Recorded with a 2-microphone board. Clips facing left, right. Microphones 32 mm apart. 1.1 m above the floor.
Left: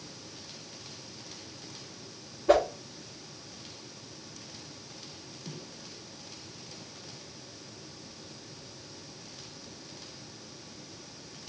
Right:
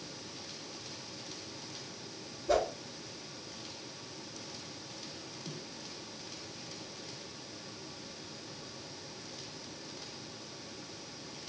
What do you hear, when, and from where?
2.5 s a whoosh: 70° left (ahead or behind), 1.1 m